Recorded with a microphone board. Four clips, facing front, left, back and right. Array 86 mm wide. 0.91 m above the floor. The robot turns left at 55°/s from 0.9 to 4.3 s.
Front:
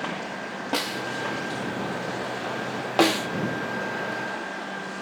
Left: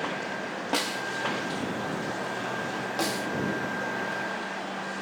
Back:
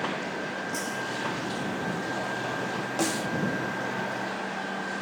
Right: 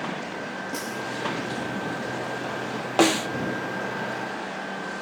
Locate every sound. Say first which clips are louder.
0.7 s a snare drum: left 5 dB, front 3 dB; 40° left; by 1.1 s 30° left
3.0 s a snare drum: right 11 dB, front 9 dB; 45° right; by 3.3 s 60° right